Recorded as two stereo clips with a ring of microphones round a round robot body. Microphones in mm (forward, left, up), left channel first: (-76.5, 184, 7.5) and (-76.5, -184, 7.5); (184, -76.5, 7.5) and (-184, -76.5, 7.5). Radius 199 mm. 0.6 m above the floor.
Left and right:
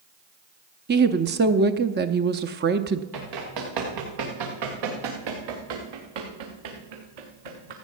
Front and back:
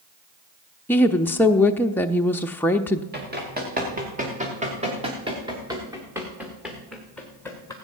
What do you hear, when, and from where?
0.9 s a woman speaking: 80° right, 0.6 m
3.1 s running footsteps: 115° right, 4.5 m; by 7.7 s 80° right, 3 m